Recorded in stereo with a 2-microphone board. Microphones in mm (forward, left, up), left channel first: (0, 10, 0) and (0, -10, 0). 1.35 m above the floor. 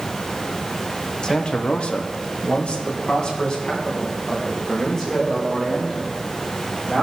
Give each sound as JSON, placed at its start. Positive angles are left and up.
{"t": 1.2, "sound": "a man speaking", "side_deg": 40, "distance_m": 1.2}